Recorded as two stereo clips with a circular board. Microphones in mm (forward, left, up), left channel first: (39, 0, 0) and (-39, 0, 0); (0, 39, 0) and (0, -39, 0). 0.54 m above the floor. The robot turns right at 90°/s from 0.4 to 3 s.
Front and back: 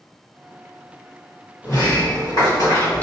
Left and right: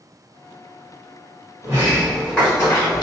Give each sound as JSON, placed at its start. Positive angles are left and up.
{"t": 1.6, "sound": "a sliding door", "azimuth_deg": -55, "distance_m": 1.3}